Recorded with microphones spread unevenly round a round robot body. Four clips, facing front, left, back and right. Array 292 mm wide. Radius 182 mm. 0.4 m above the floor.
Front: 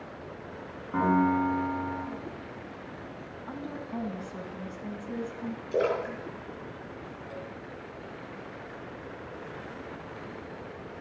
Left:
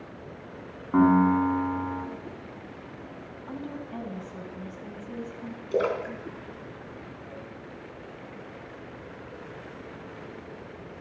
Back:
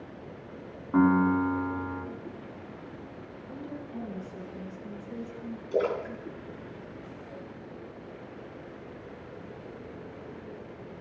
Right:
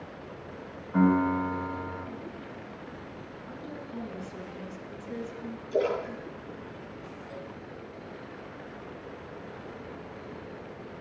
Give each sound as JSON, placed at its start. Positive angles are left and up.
{"t": 0.9, "sound": "a piano", "azimuth_deg": 110, "distance_m": 4.5}
{"t": 3.5, "sound": "a woman speaking", "azimuth_deg": 25, "distance_m": 4.0}
{"t": 5.7, "sound": "a splash", "azimuth_deg": 95, "distance_m": 4.0}